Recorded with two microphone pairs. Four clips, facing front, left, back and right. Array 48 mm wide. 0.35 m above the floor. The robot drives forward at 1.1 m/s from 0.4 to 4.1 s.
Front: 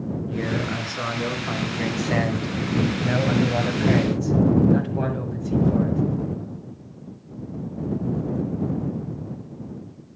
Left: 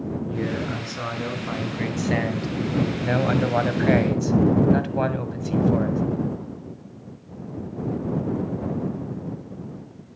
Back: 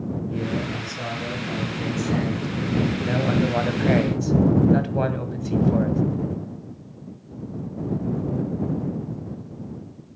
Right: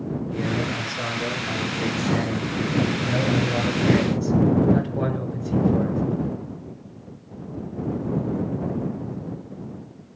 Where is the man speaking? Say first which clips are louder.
Right 2 dB, front 2 dB; 25° left, 4 m; by 6.0 s 115° left, 1.8 m.